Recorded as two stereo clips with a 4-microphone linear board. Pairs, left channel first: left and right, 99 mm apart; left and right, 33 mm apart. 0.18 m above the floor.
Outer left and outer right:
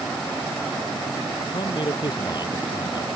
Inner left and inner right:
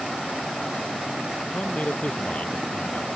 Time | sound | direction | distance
1.5 | a man speaking | 45° left (ahead or behind) | ?